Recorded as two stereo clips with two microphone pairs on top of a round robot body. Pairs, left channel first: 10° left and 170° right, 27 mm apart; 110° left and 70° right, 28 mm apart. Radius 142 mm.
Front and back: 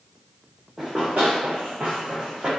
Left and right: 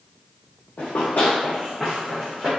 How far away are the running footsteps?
About 0.7 m.